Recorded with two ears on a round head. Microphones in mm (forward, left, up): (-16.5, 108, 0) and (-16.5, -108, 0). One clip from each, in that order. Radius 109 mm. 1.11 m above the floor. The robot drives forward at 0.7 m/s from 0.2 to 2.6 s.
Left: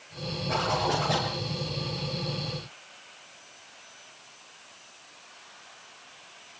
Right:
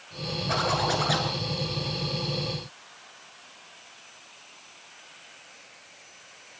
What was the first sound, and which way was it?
A zipper, 35° right (ahead or behind).